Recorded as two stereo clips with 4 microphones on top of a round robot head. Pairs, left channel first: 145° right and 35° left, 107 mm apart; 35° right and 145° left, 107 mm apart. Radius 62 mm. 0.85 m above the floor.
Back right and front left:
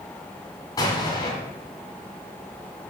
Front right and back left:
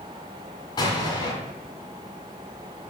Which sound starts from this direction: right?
An explosion, at 0.8 s.